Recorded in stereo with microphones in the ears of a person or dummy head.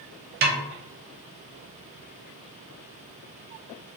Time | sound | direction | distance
0.4 | a snare drum | 40° right (ahead or behind) | 0.6 m